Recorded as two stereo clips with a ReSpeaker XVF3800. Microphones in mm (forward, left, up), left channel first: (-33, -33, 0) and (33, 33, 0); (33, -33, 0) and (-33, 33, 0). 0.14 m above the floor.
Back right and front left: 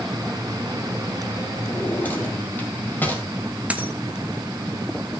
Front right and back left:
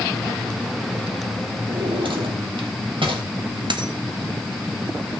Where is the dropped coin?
120° left, 1.3 m.